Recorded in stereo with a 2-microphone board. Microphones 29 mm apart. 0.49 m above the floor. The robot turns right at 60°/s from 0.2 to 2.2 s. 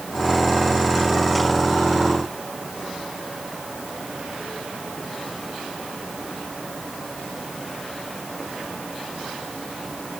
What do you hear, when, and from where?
Only background noise.